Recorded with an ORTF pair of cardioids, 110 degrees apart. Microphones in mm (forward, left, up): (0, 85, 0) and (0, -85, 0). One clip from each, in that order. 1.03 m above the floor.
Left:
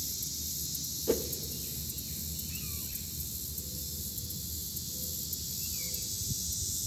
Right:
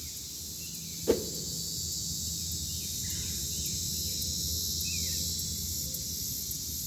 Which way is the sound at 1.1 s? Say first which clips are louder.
Right 3 dB; 15° right.